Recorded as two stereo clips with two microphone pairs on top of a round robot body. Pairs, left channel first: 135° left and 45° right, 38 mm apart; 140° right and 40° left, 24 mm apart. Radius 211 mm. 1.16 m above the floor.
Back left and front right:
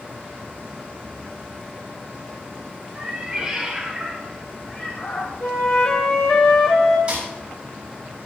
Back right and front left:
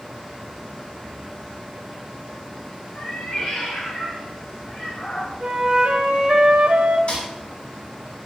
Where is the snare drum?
105° right, 6.5 m.